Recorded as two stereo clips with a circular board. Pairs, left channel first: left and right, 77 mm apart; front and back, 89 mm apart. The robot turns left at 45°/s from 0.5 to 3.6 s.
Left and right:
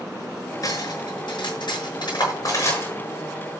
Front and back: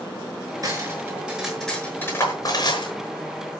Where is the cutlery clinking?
130° left, 6 m; by 2.9 s 25° left, 6 m.